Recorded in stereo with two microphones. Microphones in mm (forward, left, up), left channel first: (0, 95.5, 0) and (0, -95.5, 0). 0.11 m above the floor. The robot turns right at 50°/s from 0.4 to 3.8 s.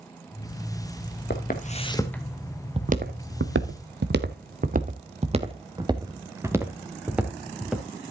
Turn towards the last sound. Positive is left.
turn(degrees=0)  # may be behind; listen again after turning